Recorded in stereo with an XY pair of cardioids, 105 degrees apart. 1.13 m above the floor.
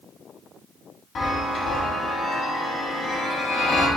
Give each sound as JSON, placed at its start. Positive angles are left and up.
{"t": 1.1, "sound": "a chime", "azimuth_deg": 55, "distance_m": 1.0}